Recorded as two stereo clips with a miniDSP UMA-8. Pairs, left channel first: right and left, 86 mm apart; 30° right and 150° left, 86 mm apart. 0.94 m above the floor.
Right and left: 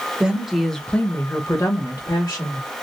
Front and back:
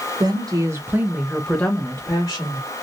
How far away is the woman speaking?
About 1.2 m.